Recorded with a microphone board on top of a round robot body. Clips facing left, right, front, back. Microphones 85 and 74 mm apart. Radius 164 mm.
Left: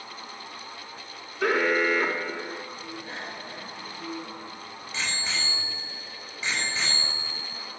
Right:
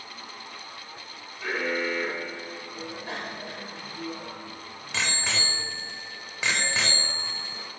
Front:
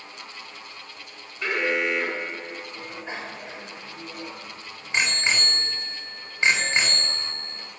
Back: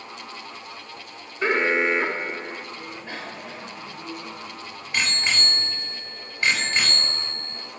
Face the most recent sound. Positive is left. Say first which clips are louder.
# right 2 dB, even
turn(degrees=-70)